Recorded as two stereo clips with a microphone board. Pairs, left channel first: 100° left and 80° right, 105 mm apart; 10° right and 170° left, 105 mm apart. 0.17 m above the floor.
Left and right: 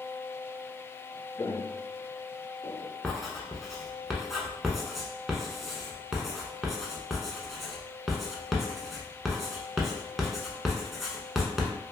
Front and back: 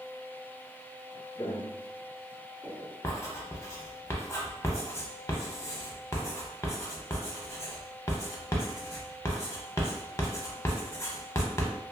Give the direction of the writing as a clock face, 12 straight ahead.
12 o'clock.